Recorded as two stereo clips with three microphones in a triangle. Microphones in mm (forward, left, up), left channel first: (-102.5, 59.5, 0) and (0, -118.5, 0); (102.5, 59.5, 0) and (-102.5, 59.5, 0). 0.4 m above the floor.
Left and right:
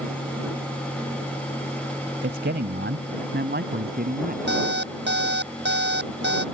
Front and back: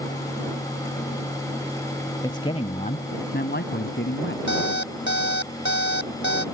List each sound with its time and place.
2.2 s a man speaking: 70° right; by 4.4 s 20° right
4.5 s an alarm clock: 30° right